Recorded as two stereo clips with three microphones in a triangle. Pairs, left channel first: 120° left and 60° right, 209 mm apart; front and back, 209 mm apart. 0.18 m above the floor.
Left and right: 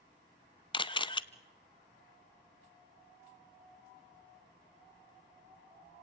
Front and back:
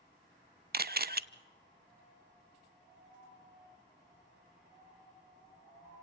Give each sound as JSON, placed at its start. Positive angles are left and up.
{"t": 0.7, "sound": "a camera shutter", "azimuth_deg": 175, "distance_m": 0.5}